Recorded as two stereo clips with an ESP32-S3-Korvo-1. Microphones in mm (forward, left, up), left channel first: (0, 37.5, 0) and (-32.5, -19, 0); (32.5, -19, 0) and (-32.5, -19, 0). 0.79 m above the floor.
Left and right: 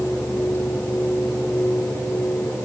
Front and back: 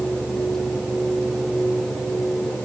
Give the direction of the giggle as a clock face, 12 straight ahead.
No giggle in this recording.